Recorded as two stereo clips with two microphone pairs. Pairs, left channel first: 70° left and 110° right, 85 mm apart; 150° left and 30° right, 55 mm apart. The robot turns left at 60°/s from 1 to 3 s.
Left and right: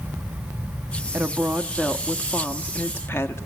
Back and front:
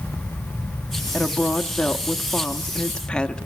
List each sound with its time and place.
1.1 s a woman speaking: 155° right, 0.8 m; by 3.5 s 90° left, 0.8 m